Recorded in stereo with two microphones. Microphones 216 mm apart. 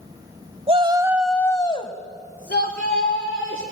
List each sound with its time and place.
0.7 s a shout: 30° right (ahead or behind), 1.0 m; by 3.6 s 65° left (ahead or behind), 2 m